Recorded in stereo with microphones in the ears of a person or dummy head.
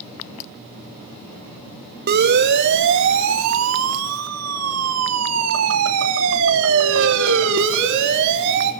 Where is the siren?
50° right (ahead or behind), 2.5 m; by 8.7 s 60° right (ahead or behind), 4 m.